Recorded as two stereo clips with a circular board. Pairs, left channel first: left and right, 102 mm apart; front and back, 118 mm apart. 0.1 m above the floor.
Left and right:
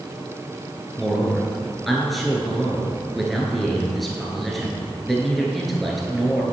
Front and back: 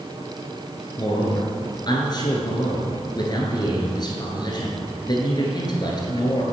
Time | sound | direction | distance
1.0 | a man speaking | straight ahead | 1.5 m